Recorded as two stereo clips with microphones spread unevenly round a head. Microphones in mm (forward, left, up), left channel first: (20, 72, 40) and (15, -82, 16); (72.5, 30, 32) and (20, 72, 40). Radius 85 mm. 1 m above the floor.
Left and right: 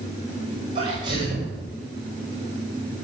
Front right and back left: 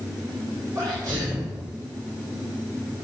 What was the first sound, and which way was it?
A sneeze, 155° right.